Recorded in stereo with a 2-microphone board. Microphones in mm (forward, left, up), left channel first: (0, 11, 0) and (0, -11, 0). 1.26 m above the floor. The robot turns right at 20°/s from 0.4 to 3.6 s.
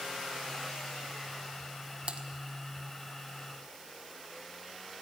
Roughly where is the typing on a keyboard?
Right.